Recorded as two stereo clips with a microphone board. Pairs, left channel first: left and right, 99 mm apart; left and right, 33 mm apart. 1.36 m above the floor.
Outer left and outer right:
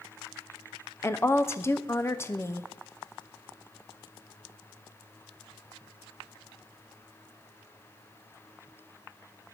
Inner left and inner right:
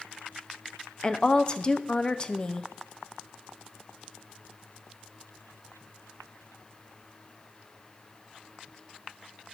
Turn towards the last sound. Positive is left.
turn(degrees=25)  # may be behind; listen again after turning